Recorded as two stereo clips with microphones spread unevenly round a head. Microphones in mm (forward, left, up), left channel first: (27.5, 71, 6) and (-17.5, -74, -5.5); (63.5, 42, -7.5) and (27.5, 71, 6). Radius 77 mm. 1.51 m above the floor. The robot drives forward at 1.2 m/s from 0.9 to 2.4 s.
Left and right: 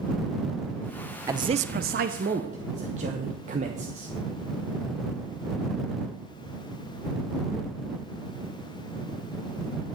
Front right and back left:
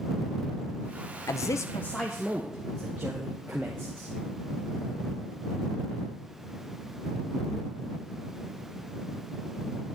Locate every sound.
1.3 s a man speaking: 35° right, 0.7 m; by 4.1 s 155° right, 1.0 m